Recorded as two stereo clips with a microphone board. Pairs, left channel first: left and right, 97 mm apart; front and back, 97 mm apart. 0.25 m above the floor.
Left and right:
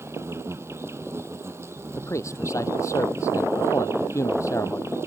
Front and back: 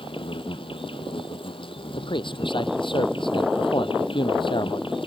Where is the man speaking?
30° left.